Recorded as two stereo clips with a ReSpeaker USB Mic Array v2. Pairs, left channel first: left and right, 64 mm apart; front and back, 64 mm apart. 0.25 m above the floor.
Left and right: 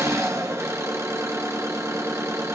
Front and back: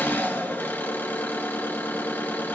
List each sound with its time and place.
0.0 s an engine running: 55° right, 2.5 m